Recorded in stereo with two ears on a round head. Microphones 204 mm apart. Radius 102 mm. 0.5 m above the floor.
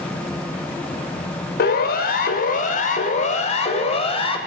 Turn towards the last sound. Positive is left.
turn(degrees=25)  # may be behind; listen again after turning